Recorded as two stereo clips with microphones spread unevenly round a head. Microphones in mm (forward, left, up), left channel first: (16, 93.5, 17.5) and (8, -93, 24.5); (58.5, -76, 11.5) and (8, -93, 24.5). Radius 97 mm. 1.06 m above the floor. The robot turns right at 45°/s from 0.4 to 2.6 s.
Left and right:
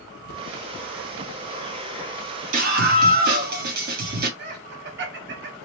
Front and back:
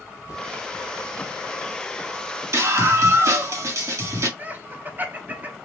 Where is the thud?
95° left, 1.2 m; by 0.5 s 100° left, 1.2 m.